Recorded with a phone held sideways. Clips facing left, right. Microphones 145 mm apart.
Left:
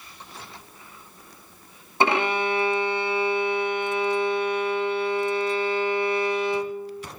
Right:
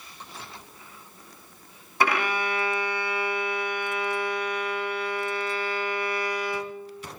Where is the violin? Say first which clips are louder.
Left 3 dB; 25° left (ahead or behind), 0.5 m.